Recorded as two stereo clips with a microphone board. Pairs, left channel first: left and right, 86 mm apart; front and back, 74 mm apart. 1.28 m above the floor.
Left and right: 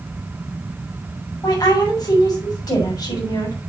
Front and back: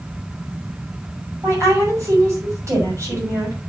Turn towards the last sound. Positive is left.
turn(degrees=135)